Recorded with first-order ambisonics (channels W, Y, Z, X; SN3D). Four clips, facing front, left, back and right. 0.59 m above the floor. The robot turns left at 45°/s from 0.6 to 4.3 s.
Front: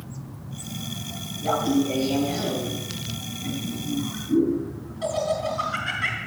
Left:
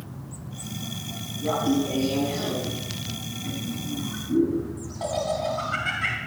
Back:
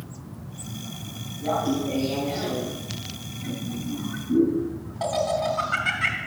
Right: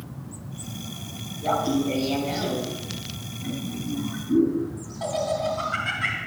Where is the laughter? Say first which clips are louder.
Even, front 2 dB; 65° right, 3.5 m; by 6.2 s 165° left, 3.5 m.